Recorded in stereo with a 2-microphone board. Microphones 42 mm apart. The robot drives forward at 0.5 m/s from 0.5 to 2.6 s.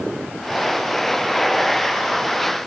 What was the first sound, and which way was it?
Only background noise.